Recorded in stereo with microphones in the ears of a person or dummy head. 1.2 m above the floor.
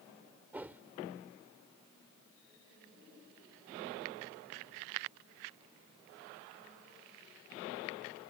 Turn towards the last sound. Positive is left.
turn(degrees=-10)  # may be behind; listen again after turning